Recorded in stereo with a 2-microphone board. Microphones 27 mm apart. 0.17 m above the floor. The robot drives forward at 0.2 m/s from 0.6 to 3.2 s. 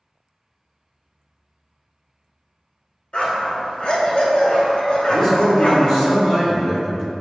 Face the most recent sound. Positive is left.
turn(degrees=30)  # may be behind; listen again after turning